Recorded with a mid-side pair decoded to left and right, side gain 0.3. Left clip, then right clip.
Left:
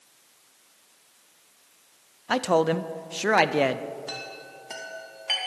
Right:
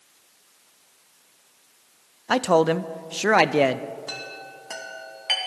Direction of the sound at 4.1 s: 30° right.